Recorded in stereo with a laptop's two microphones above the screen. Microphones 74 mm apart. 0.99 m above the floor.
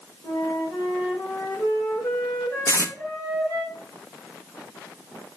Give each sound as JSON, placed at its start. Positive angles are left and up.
{"t": 0.2, "sound": "a flute", "side_deg": 70, "distance_m": 3.5}
{"t": 2.7, "sound": "tape being pulled", "side_deg": 45, "distance_m": 1.1}